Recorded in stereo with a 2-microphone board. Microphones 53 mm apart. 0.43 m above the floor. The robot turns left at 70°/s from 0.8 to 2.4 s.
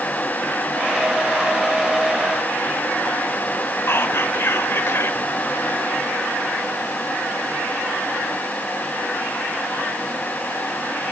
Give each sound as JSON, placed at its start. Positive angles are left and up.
{"t": 3.9, "sound": "whispering", "side_deg": 50, "distance_m": 1.5}